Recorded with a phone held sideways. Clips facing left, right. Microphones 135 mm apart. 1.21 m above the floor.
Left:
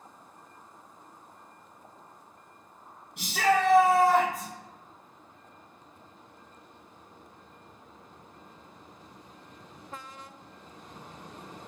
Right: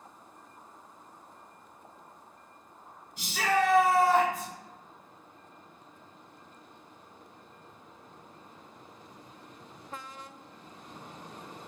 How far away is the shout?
About 1.2 m.